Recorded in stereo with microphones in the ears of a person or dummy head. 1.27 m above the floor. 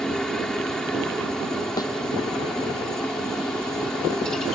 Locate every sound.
0.0 s a helicopter: centre (ahead or behind)
1.8 s a thud: 20° left (ahead or behind)